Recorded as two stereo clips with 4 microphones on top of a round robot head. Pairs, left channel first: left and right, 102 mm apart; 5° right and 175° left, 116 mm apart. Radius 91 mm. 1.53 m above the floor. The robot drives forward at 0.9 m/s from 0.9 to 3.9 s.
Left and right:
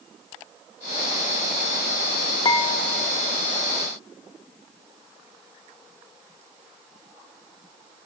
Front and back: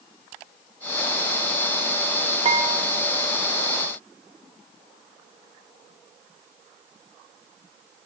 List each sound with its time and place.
2.5 s dishes clattering: 135° left, 2.5 m; by 3.1 s 145° left, 3 m